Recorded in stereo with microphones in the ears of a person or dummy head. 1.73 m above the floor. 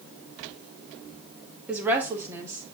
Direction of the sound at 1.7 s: 10° right (ahead or behind).